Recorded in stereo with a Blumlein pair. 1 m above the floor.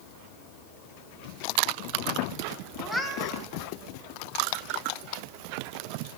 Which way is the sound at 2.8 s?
5° right.